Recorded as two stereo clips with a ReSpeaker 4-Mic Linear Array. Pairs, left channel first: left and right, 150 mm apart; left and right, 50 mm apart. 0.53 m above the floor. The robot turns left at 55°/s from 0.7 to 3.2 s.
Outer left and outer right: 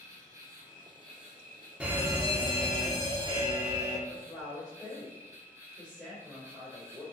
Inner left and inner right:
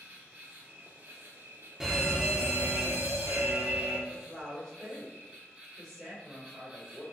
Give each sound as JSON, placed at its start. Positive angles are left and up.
{"t": 0.0, "sound": "an insect", "azimuth_deg": -25, "distance_m": 3.0}
{"t": 1.8, "sound": "a fire alarm", "azimuth_deg": -15, "distance_m": 2.0}
{"t": 4.1, "sound": "a woman speaking", "side_deg": 5, "distance_m": 2.5}